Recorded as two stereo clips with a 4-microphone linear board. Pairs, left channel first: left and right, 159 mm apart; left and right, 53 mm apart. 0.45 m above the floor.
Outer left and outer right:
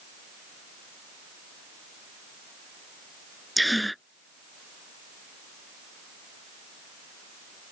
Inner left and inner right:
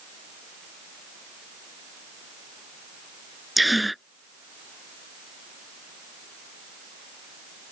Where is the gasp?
Centre (ahead or behind).